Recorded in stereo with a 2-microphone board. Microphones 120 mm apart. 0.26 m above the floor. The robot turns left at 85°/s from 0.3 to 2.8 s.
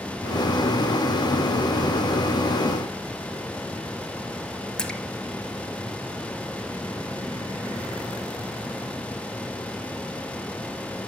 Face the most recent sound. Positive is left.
turn(degrees=5)  # may be behind; listen again after turning